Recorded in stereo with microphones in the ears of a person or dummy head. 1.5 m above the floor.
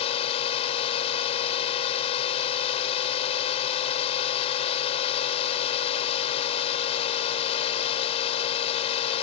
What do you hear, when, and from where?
0.0 s a drone: 35° left (ahead or behind)